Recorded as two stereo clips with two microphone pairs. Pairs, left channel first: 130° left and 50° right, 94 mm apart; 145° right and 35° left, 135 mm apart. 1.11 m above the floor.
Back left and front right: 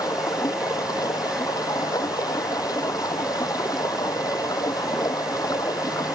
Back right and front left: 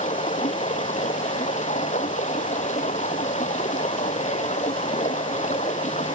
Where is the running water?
175° right.